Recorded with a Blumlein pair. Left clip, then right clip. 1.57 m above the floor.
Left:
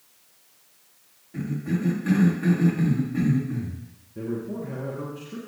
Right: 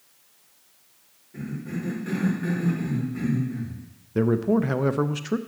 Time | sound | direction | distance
1.3 | a cough | 15° left | 3 m
4.2 | a man speaking | 40° right | 0.7 m